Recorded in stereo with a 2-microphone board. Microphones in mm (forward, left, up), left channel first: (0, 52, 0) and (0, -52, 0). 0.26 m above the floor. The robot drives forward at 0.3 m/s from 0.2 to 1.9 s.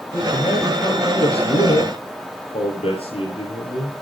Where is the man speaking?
65° left (ahead or behind), 5.5 m; by 3.9 s 60° left (ahead or behind), 6 m.